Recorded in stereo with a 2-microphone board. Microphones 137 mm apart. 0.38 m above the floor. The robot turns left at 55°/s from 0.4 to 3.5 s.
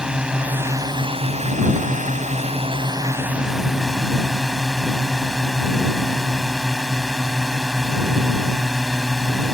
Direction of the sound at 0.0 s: 5° right.